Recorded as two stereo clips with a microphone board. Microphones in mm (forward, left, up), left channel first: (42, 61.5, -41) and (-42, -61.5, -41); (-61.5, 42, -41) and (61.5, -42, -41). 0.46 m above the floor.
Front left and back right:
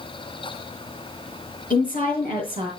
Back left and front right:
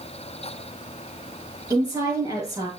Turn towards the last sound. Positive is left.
turn(degrees=30)